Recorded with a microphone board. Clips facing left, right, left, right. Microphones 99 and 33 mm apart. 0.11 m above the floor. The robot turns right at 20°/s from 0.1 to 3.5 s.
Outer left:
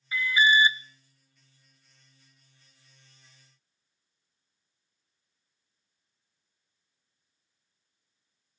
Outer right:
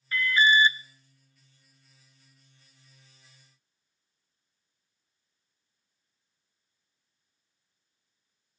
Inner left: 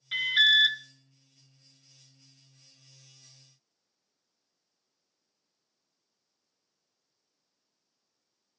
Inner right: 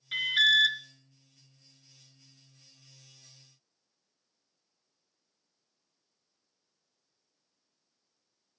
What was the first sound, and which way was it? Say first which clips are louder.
An alarm: even, inner left 2 dB; 10° left (ahead or behind).